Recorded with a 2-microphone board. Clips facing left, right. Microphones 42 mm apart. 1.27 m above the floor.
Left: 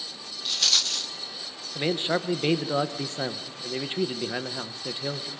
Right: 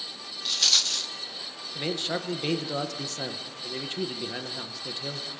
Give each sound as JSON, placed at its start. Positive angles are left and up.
{"t": 0.5, "sound": "a rattle", "side_deg": 0, "distance_m": 0.9}
{"t": 1.8, "sound": "a man speaking", "side_deg": 20, "distance_m": 1.3}